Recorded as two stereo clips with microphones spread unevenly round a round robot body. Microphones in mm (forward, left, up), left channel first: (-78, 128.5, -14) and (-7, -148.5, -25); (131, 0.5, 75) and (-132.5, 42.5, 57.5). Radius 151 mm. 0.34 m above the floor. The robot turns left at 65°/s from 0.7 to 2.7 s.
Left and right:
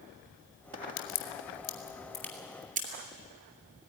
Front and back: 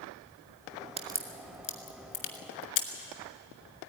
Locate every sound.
1.0 s a crack: 105° left, 2.5 m; by 2.9 s 10° right, 2.5 m